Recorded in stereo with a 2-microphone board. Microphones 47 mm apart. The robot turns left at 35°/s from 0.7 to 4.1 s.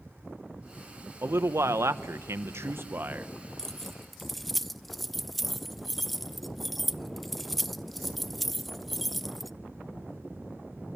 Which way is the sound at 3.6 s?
10° left (ahead or behind).